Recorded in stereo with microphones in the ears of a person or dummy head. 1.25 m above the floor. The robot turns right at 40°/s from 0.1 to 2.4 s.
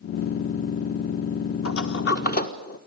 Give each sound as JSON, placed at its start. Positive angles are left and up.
{"t": 1.6, "sound": "a sliding door", "side_deg": 65, "distance_m": 1.5}